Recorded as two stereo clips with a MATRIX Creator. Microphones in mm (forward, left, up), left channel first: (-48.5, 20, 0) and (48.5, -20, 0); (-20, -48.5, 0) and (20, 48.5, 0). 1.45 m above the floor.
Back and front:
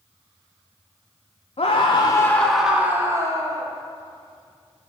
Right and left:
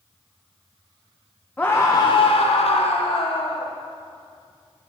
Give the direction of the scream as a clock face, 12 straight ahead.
6 o'clock.